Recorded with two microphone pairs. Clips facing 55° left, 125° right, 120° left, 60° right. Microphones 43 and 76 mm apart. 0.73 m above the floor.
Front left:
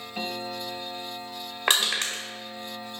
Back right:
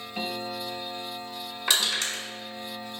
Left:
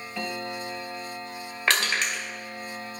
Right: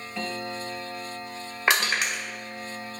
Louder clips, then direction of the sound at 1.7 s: Front left 2 dB, right 1 dB; 15° left.